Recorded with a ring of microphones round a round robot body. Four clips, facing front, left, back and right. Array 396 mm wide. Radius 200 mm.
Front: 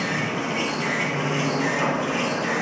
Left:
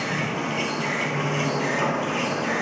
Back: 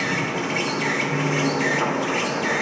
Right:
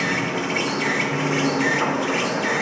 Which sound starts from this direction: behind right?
An insect, at 0.0 s.